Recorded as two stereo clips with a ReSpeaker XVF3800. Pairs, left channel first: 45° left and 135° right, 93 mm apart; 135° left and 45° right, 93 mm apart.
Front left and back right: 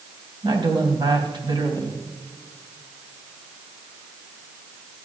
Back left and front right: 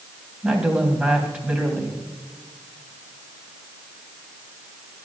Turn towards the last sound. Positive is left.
turn(degrees=-120)